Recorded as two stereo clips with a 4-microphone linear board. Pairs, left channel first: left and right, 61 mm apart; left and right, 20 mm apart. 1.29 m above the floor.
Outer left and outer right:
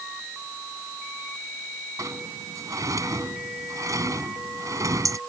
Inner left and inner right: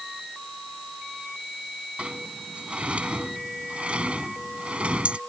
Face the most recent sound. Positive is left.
turn(degrees=-60)  # may be behind; listen again after turning